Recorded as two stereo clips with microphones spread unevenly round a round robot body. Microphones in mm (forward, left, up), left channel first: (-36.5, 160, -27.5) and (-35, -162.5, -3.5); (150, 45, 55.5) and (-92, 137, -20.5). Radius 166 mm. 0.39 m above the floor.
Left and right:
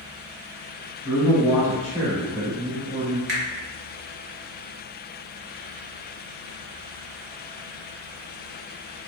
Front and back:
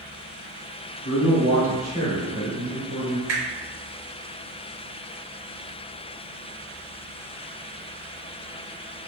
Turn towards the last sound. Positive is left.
turn(degrees=-140)